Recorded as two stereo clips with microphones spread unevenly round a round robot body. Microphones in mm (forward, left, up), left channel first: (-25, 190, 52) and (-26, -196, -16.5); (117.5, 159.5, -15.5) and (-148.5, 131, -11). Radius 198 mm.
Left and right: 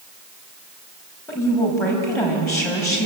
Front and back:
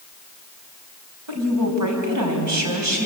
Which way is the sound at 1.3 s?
175° left.